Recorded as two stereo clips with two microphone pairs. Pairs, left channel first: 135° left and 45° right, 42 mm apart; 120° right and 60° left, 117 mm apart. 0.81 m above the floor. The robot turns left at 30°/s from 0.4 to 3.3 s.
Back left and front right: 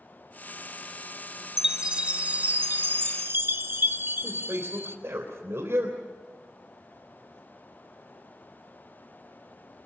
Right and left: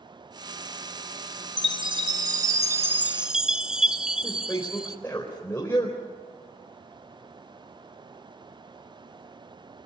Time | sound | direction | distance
1.6 | a chime | 30° left | 1.5 m
4.2 | a man speaking | 50° right | 4 m